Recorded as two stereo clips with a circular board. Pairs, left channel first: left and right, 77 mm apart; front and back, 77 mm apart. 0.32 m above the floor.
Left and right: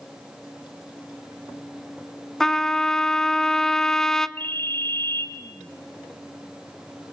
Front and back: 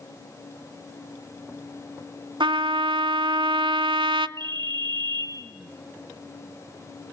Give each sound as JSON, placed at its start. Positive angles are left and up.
{"t": 2.4, "sound": "a trumpet", "azimuth_deg": 175, "distance_m": 0.6}
{"t": 4.4, "sound": "a ringtone", "azimuth_deg": 155, "distance_m": 3.0}